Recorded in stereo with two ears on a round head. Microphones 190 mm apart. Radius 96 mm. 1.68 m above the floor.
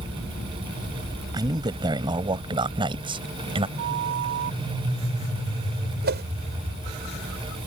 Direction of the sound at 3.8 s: 60° right (ahead or behind).